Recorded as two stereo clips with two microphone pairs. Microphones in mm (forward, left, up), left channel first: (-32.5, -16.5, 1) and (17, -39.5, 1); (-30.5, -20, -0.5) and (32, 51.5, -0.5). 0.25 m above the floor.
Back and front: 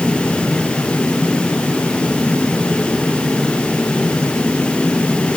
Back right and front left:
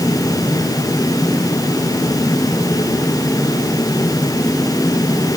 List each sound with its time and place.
Only background noise.